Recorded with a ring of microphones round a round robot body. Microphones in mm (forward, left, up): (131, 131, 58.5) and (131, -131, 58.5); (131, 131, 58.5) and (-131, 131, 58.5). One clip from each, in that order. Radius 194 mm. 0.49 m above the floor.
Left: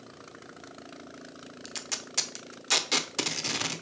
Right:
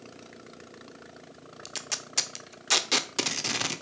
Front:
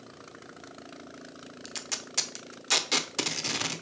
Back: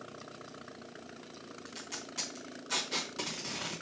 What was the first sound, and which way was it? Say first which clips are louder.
Tape being pulled: right 2 dB, front 8 dB; 15° right.